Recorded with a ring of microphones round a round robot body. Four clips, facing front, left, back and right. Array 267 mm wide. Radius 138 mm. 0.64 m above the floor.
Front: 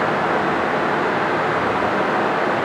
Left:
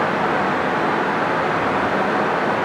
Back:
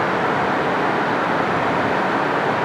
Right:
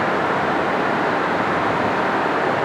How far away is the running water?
About 3 m.